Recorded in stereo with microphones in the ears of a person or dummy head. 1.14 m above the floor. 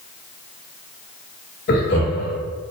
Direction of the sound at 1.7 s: 40° left (ahead or behind).